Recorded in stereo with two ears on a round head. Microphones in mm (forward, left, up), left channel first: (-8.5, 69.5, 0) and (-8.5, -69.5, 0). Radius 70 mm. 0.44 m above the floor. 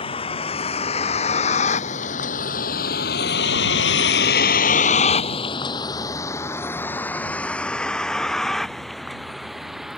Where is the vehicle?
35° left (ahead or behind); by 10.0 s centre (ahead or behind).